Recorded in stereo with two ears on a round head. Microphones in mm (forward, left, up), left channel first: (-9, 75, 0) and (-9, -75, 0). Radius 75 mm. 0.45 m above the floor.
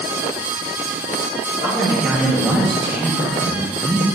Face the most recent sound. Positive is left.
turn(degrees=10)  # may be behind; listen again after turning